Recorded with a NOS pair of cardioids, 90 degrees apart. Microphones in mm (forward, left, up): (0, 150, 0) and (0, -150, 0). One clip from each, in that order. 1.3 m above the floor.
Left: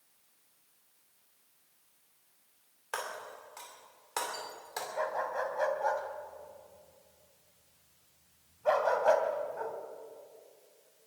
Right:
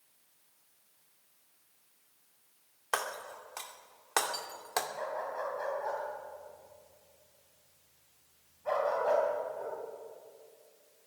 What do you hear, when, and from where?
2.9 s breaking glass: 45° right, 2.5 m
5.0 s a dog barking: 50° left, 3 m